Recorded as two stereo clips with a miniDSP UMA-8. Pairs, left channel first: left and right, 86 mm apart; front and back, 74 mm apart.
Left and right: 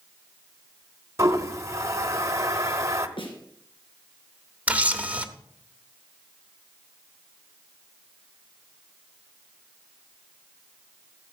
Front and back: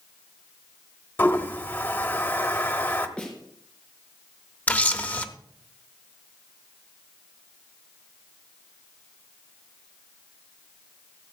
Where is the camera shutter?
40° right, 0.8 m.